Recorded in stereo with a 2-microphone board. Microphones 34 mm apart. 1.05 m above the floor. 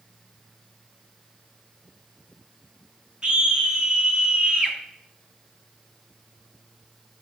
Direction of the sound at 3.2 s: 25° right (ahead or behind).